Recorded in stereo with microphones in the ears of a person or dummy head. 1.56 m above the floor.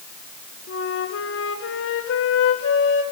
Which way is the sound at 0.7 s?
70° left (ahead or behind).